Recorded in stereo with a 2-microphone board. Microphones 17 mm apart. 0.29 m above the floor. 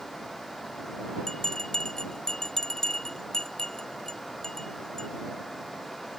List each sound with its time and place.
1.3 s a bell: 40° left (ahead or behind)